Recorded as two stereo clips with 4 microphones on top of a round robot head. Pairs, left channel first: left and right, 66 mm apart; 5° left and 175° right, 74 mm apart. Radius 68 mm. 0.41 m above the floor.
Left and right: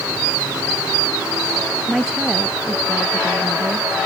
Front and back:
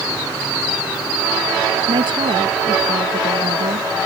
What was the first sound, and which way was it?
A woman speaking, 175° right.